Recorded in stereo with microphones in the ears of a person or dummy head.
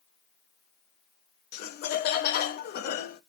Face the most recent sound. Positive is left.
turn(degrees=50)  # may be behind; listen again after turning